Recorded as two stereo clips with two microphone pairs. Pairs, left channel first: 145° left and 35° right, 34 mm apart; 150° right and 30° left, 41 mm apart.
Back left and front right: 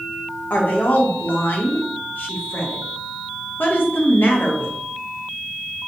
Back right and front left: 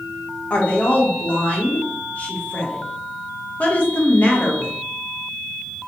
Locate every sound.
0.5 s a woman speaking: 155° left, 1.1 m